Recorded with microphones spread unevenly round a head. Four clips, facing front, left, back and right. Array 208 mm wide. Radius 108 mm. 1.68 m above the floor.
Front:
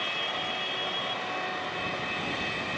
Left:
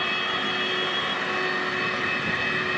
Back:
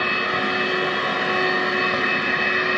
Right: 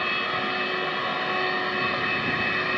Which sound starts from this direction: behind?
A machine running, at 0.0 s.